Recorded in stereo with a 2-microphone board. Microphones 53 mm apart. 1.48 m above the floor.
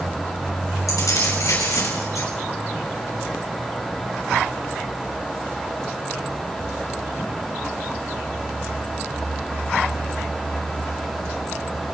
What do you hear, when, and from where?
0.9 s keys jangling: 80° left, 6.5 m